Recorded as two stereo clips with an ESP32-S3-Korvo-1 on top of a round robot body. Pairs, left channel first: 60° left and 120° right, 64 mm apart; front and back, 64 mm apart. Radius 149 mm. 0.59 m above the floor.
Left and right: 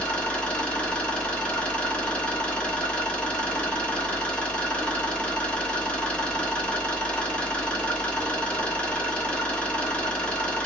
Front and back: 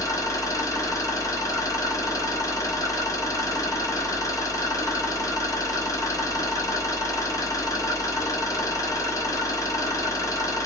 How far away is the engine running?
About 1.5 m.